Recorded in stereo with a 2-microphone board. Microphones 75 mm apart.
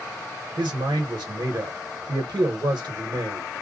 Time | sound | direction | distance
0.6 | a man speaking | 75° right (ahead or behind) | 1.1 m